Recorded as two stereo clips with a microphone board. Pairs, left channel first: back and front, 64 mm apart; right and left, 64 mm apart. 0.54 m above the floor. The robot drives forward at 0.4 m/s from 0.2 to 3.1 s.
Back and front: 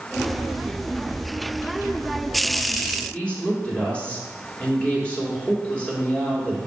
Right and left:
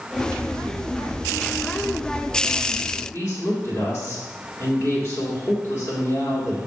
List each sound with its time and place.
3.1 s a woman speaking: 115° right, 1.7 m